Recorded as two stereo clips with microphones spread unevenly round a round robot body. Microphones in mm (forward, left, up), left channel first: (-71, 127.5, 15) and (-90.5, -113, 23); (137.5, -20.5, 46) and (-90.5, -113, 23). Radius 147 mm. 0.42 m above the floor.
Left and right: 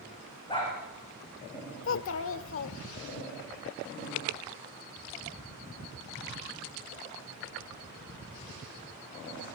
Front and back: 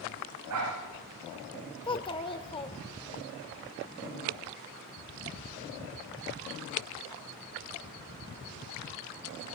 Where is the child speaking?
95° left, 0.8 m.